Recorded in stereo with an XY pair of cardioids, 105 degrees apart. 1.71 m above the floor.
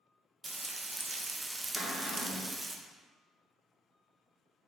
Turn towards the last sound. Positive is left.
turn(degrees=30)